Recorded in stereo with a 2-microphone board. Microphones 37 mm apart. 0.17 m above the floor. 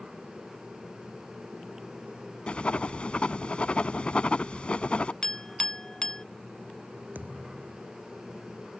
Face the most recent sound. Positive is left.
turn(degrees=-55)  # may be behind; listen again after turning